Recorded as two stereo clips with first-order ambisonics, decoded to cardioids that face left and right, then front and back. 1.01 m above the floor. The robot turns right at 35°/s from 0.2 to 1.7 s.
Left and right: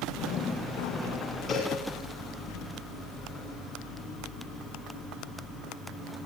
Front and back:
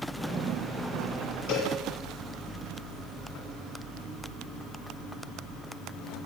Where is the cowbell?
20° left, 6 m; by 1.7 s 25° left, 6 m.